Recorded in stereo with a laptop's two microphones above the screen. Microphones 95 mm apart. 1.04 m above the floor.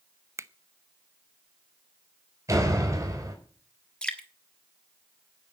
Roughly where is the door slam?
Right.